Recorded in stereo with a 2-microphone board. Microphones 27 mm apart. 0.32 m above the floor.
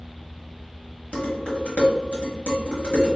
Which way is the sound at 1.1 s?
50° left (ahead or behind).